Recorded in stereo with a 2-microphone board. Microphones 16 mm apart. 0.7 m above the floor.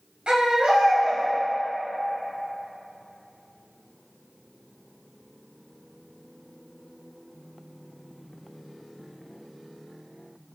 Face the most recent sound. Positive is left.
turn(degrees=-75)  # may be behind; listen again after turning